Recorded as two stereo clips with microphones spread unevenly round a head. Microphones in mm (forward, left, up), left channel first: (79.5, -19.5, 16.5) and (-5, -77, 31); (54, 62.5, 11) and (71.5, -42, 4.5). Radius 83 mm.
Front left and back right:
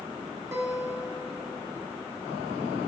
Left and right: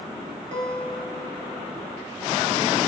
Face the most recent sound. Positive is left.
turn(degrees=-90)